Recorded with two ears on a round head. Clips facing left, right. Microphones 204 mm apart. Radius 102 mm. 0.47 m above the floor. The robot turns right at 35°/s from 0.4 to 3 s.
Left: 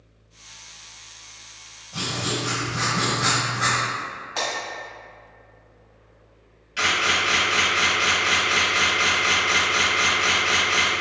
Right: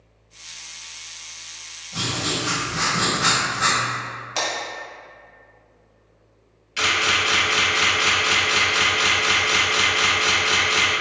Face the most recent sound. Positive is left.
turn(degrees=-30)  # may be behind; listen again after turning